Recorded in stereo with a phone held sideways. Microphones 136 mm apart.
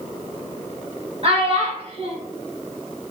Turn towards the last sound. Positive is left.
turn(degrees=-45)  # may be behind; listen again after turning